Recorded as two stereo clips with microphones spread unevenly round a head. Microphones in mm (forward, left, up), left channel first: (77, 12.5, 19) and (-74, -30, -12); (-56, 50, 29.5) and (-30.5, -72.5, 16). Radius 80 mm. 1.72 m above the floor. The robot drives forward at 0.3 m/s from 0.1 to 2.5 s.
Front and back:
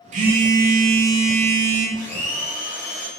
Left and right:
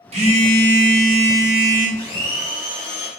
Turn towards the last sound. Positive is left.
turn(degrees=-65)